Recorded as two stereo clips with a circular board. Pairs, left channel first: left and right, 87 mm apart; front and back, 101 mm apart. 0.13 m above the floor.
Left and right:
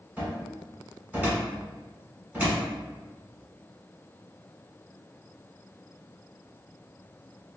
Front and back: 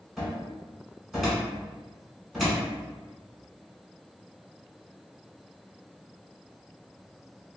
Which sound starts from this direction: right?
A cupboard door, at 0.2 s.